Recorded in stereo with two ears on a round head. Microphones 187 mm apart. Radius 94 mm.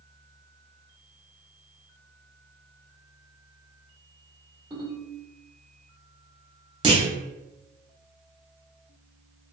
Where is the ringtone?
20° right (ahead or behind), 1.6 m.